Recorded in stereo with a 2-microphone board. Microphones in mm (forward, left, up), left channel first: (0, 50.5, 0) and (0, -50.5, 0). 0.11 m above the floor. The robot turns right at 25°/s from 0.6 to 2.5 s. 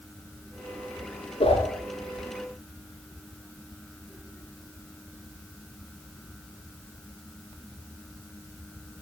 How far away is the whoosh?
About 10 m.